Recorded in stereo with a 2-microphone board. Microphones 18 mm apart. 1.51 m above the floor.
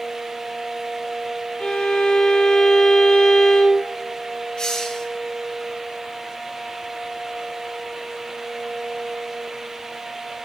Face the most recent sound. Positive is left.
turn(degrees=55)  # may be behind; listen again after turning